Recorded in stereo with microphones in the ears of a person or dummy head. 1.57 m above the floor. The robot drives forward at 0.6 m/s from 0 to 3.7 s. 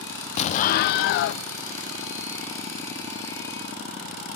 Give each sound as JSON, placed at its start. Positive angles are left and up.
{"t": 0.4, "sound": "an explosion", "side_deg": 35, "distance_m": 0.6}